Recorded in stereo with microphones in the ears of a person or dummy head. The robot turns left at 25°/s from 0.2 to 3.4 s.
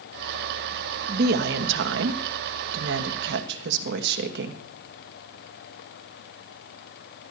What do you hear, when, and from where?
1.1 s a woman speaking: 55° right, 1.3 m; by 4.6 s 110° right, 1.3 m